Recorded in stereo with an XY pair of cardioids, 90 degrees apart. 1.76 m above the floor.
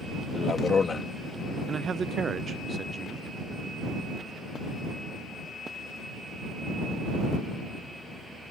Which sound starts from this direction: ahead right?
A man speaking, at 1.7 s.